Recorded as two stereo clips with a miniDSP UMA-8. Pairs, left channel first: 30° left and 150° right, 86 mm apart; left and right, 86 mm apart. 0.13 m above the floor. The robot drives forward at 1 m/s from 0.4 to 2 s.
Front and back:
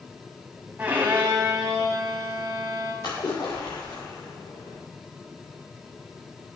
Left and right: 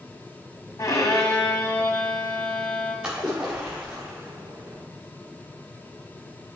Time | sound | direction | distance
0.8 | a violin | 135° left | 1.6 m
3.0 | a splash | 10° right | 4 m